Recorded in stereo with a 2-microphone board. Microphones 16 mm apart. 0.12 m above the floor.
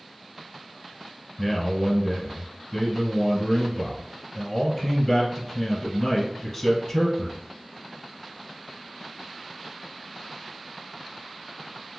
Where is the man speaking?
20° left (ahead or behind), 1.5 m.